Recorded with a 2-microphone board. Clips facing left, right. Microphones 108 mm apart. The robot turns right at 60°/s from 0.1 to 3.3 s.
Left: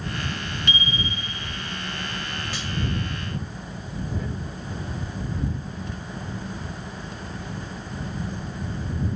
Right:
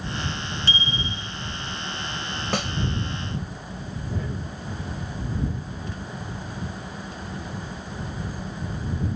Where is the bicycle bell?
150° right; by 1.8 s 80° right.